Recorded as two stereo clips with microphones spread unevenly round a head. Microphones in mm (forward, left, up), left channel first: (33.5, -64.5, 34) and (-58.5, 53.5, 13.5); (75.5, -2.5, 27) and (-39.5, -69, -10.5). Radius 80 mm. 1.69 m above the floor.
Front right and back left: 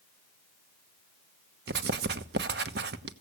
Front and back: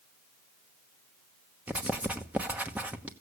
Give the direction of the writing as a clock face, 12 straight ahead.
8 o'clock.